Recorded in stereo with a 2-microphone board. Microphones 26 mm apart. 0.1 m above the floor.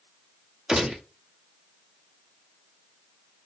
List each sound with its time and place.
0.7 s a gunshot: 20° right (ahead or behind), 0.6 m